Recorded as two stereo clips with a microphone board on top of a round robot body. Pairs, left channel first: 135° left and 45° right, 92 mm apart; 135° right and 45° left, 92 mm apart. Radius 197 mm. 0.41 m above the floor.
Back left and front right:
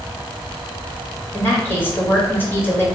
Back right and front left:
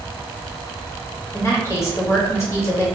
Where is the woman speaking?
175° right, 1.5 m.